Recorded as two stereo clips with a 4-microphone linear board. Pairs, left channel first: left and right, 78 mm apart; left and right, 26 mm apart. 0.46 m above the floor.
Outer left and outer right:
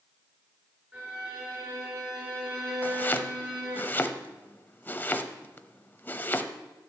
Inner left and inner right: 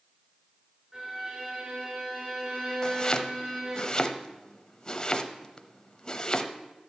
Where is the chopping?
25° left (ahead or behind), 0.8 m.